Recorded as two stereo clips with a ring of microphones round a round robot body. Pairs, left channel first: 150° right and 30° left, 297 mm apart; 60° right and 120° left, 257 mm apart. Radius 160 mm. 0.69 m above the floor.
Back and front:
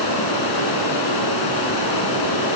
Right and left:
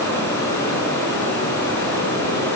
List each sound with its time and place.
0.0 s running water: 140° right, 7 m